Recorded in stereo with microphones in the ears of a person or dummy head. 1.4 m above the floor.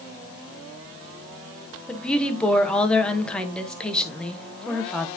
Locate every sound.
1.9 s a woman speaking: 5° left (ahead or behind), 0.9 m